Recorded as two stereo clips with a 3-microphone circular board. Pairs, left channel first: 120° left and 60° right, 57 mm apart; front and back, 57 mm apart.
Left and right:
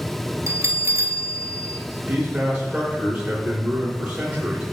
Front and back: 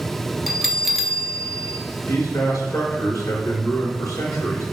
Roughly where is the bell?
Right.